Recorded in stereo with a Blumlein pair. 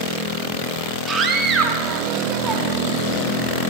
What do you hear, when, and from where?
1.1 s a scream: 20° right, 3 m